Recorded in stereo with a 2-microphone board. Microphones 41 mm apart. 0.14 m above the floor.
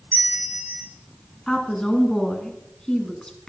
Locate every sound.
0.1 s a bell: 50° right (ahead or behind), 1.3 m
1.5 s a woman speaking: 15° left (ahead or behind), 1.6 m